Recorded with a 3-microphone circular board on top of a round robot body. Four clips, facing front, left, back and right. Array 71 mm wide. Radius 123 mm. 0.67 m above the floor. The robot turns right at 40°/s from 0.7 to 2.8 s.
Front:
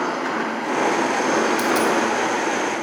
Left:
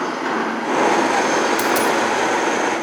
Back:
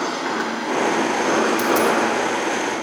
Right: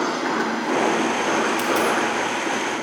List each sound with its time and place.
1.6 s a dropped coin: 95° left, 1.2 m; by 2.0 s 110° left, 1.2 m